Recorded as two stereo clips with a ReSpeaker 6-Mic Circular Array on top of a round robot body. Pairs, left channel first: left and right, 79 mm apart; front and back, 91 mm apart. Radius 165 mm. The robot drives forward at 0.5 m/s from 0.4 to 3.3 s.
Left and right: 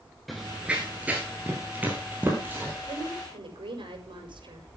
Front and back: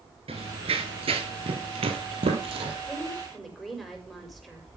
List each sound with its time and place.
0.3 s running footsteps: straight behind, 1.0 m; by 2.8 s 160° right, 3 m
2.9 s a woman speaking: 90° right, 6 m